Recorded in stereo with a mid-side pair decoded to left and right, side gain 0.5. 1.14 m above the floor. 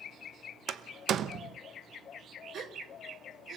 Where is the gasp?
50° right, 1.8 m.